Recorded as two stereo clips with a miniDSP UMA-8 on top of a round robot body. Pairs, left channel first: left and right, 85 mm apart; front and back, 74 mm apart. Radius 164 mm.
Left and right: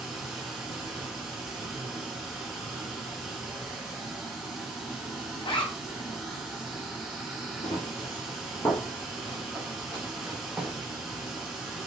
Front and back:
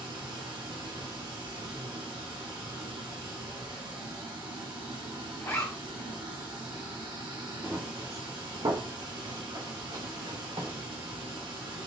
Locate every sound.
0.0 s running water: 175° right, 1.3 m
5.4 s a zipper: 65° left, 1.0 m
7.6 s running footsteps: 115° left, 1.5 m; by 10.7 s 170° right, 2.5 m